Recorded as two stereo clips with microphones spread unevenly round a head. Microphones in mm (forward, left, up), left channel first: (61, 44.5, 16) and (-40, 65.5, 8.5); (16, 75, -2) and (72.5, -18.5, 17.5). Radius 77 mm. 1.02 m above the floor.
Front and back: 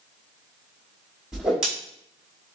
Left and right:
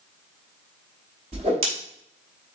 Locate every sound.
1.3 s a whoosh: 105° right, 0.9 m